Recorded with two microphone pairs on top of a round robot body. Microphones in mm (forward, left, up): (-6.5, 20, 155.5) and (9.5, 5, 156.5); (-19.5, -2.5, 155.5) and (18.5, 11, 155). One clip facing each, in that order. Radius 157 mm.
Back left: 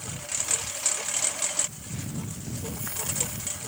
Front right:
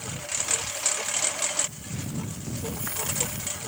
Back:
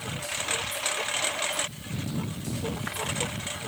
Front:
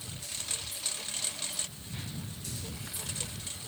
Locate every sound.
0.0 s a lawn mower: 120° right